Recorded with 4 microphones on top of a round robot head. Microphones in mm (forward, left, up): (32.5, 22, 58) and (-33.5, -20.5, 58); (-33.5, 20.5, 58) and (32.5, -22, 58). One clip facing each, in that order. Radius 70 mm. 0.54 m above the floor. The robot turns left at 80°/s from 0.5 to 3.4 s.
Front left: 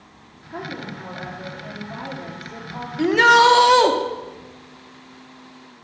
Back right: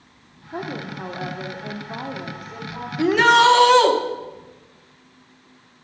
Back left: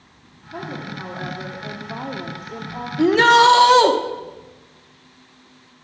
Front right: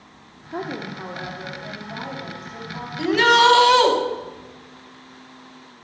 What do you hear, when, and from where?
0.5 s a woman speaking: 80° right, 1.6 m; by 2.9 s 90° left, 1.6 m
3.0 s a shout: 135° left, 1.2 m; by 3.9 s 100° left, 1.2 m